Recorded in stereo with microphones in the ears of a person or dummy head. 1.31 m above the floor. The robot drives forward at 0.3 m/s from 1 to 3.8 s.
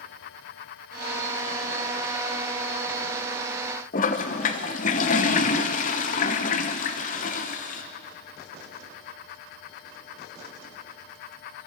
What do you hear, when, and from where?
3.9 s a toilet flushing: 45° left (ahead or behind), 1.2 m